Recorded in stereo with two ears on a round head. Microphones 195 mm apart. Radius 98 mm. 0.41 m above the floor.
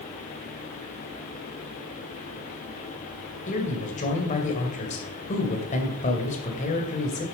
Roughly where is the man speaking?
Left.